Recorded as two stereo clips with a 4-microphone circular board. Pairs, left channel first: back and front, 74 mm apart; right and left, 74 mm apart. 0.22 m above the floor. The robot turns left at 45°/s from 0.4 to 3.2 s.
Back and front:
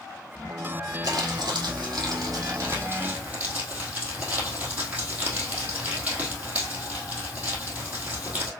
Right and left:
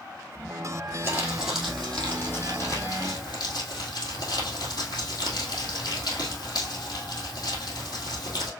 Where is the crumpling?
30° left, 2.5 m; by 8.5 s 65° right, 2.5 m.